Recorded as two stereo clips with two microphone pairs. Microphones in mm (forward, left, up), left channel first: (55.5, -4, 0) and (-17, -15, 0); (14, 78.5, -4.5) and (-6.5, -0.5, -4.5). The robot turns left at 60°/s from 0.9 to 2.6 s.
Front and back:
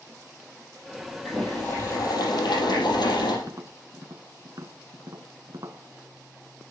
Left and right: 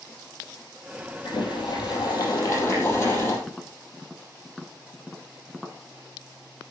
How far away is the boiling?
About 4 m.